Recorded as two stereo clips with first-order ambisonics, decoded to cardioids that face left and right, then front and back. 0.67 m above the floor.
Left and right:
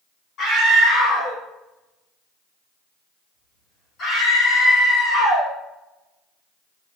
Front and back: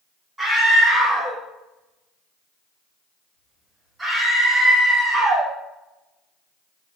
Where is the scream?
110° left, 1.4 m.